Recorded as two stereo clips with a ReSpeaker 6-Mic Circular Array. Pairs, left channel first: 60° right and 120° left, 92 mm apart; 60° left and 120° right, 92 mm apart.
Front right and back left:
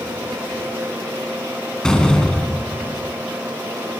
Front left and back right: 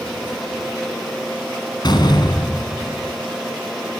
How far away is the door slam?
About 3 m.